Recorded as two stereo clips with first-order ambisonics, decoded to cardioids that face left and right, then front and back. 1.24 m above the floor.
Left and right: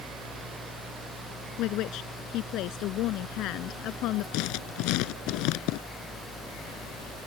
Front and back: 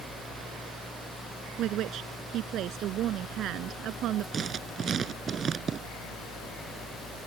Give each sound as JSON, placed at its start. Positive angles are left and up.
{"t": 1.6, "sound": "a woman speaking", "azimuth_deg": 130}
{"t": 4.3, "sound": "writing", "azimuth_deg": 115}